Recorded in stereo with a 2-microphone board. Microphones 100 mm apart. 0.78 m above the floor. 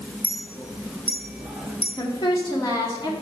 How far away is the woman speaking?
About 2 m.